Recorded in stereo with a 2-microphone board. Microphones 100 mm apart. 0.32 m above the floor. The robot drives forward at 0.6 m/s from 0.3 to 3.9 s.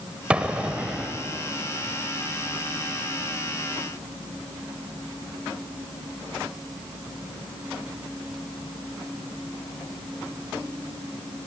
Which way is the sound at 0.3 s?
10° right (ahead or behind).